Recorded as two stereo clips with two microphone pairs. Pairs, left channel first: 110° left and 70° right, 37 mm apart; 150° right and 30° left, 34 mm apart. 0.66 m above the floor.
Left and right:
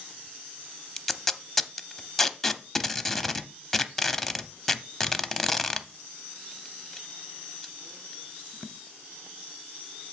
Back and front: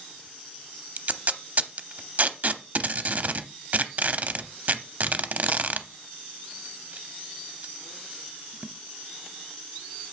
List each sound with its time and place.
1.0 s tape being pulled: 30° left, 0.6 m